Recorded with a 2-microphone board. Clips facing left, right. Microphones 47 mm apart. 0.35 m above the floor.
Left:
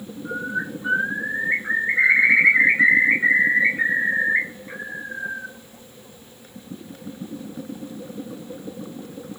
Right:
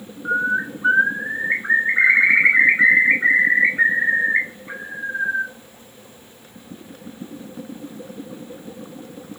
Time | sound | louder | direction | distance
0.2 | a bird | right 7 dB | 45° right (ahead or behind) | 1.4 m